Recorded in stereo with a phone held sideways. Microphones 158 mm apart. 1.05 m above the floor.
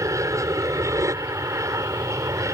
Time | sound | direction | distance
0.0 | an aircraft | 20° right (ahead or behind) | ?